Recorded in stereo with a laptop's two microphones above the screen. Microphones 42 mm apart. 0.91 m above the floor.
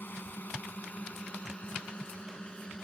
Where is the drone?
45° left (ahead or behind); by 2.9 s 15° left (ahead or behind).